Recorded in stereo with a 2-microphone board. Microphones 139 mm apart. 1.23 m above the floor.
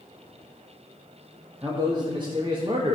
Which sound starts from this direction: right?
A man speaking, at 1.6 s.